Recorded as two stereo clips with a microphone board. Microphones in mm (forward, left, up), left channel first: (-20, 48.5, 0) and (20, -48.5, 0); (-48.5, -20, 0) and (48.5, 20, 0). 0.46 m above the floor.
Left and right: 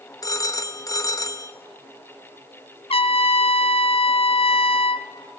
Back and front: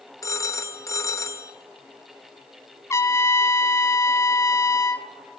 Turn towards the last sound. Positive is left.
turn(degrees=140)